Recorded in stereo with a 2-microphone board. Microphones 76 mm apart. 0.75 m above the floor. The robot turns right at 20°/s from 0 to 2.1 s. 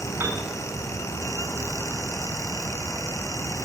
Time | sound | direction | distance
0.2 | a piano | 30° right (ahead or behind) | 5.5 m